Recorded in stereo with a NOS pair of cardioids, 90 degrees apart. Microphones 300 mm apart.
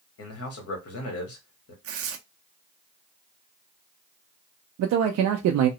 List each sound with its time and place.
0.2 s a man speaking: 50° left, 1.5 m
1.8 s tearing paper: 50° right, 0.6 m
4.8 s a man speaking: 65° right, 0.5 m